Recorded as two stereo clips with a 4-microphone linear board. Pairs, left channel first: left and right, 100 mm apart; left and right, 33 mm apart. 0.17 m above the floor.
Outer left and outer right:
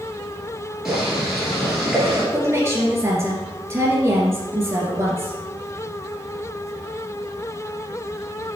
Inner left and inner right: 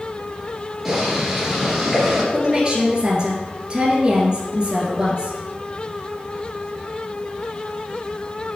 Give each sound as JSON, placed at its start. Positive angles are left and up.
{"t": 0.8, "sound": "boiling", "side_deg": -5, "distance_m": 3.5}
{"t": 2.3, "sound": "a woman speaking", "side_deg": -25, "distance_m": 2.5}